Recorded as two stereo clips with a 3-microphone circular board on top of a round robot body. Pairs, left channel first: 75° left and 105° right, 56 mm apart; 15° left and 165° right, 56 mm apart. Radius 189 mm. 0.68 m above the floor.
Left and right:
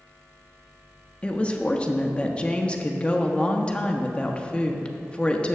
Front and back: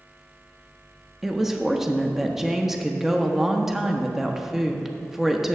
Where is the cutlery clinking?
I don't hear cutlery clinking.